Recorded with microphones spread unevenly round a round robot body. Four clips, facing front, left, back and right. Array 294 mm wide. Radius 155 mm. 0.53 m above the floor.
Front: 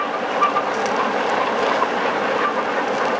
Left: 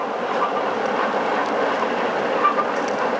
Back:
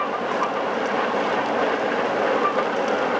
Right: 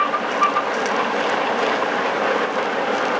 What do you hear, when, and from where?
Only background noise.